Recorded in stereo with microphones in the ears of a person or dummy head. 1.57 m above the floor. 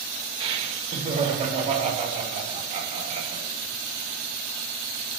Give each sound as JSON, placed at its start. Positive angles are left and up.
{"t": 0.4, "sound": "laughter", "side_deg": -30, "distance_m": 2.0}